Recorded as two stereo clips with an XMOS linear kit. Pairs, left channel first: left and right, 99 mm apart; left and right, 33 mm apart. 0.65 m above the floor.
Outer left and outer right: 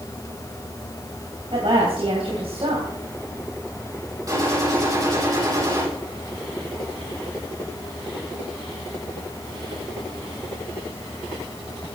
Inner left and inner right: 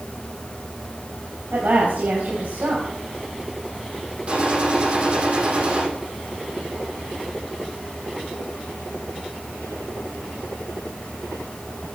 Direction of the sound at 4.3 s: 35° right (ahead or behind).